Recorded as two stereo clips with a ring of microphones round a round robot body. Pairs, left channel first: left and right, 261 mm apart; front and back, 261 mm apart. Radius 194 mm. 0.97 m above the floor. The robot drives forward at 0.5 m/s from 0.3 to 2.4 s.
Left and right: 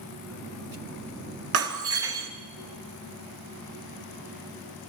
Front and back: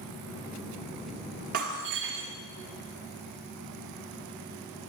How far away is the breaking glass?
About 1.8 m.